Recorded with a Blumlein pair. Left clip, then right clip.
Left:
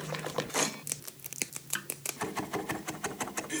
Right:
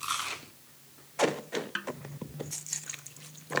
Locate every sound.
1.8 s a snare drum: 10° right